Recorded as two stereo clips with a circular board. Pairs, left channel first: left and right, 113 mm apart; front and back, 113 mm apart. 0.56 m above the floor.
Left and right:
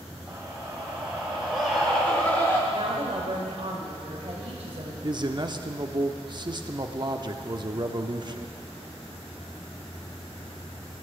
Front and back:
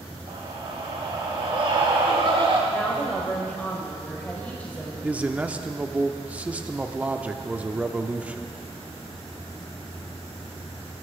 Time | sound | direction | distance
0.3 | a scream | 165° right | 2.5 m
2.7 | a woman speaking | 75° right | 2.5 m
5.0 | a man speaking | 110° right | 0.8 m